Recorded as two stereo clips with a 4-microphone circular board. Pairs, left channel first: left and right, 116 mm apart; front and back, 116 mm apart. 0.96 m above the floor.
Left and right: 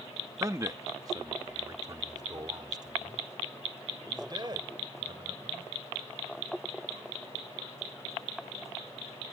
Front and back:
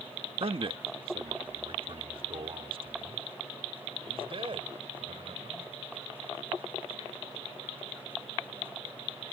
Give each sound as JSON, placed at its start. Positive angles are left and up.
{"t": 0.4, "sound": "a man speaking", "azimuth_deg": -150}